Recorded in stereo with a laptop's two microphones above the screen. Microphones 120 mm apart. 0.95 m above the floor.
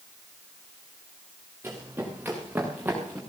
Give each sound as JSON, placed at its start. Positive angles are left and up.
{"t": 1.6, "sound": "running footsteps", "side_deg": -15, "distance_m": 6.5}